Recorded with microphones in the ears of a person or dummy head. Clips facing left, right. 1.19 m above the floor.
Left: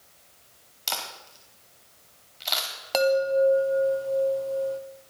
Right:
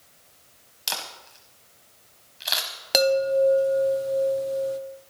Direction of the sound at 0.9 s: 15° right (ahead or behind).